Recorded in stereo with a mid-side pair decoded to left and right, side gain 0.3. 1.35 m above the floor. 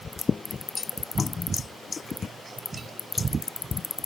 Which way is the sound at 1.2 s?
50° left.